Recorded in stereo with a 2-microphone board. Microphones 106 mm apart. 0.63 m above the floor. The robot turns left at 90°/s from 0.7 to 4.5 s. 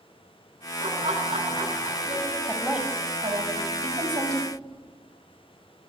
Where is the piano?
No piano in this recording.